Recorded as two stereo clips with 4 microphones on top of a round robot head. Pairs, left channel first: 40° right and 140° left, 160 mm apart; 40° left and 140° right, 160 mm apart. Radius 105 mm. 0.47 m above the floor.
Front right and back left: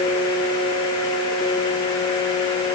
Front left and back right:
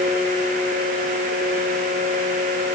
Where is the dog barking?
No dog barking in this recording.